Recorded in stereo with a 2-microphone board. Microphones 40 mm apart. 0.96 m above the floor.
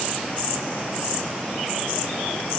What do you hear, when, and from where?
Only background noise.